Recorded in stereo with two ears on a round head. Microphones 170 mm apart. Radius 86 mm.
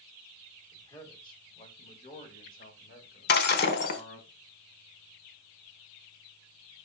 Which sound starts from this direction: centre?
A man speaking, at 0.7 s.